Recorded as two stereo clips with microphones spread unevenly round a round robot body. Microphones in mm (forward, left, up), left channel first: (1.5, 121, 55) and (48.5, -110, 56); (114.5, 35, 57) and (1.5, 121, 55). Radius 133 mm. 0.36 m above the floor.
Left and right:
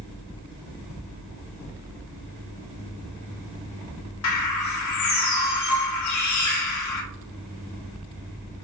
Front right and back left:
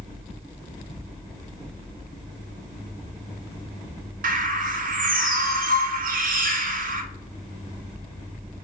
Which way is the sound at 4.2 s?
125° left.